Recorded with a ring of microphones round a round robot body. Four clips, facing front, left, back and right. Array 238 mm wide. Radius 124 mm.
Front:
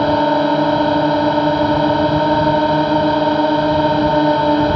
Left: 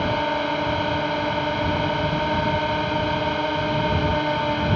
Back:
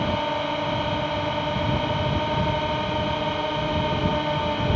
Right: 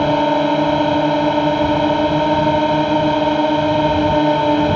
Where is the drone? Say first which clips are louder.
Right 8 dB, front 11 dB; 40° right.